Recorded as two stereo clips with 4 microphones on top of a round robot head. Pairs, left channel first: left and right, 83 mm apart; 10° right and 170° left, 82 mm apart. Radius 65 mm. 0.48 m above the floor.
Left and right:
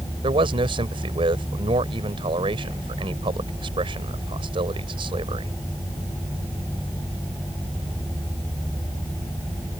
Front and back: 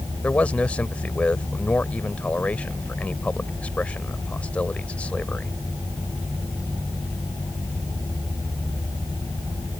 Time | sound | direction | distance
0.2 | a man speaking | 85° right | ?